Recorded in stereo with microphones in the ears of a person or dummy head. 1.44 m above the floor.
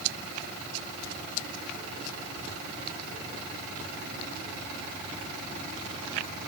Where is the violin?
No violin in this recording.